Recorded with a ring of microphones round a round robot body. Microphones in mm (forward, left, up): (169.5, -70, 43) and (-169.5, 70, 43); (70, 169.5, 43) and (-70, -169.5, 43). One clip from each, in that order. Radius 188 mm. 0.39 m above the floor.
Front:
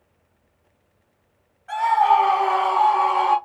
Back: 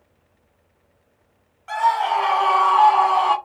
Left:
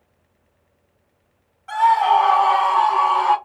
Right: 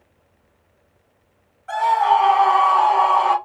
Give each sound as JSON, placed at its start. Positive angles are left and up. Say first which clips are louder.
{"t": 1.7, "sound": "a scream", "louder": "front 2 dB, left 1 dB", "azimuth_deg": 135, "distance_m": 2.0}